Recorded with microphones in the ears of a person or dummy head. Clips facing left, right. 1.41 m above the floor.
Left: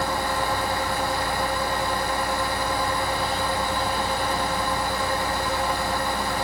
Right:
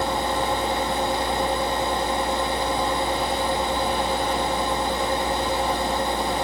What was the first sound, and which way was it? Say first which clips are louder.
A fan: right 2 dB; 15° right (ahead or behind).